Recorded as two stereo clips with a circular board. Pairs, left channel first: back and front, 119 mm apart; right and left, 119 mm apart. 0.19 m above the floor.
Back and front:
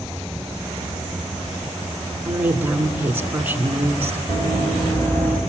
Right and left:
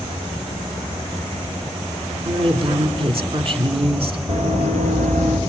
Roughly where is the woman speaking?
Left.